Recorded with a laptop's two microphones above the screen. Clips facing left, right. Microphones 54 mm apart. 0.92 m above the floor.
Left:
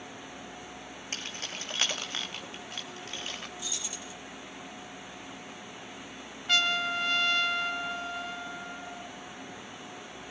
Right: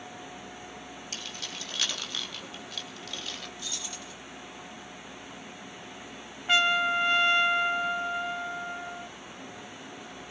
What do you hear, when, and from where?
1.1 s keys jangling: 40° left (ahead or behind), 4.5 m; by 3.5 s 30° left (ahead or behind), 3.5 m
3.6 s keys jangling: 15° left (ahead or behind), 5 m
6.5 s a trumpet: 20° right (ahead or behind), 0.9 m